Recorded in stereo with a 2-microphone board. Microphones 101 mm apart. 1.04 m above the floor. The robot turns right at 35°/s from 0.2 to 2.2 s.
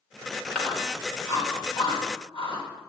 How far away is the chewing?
About 2.5 m.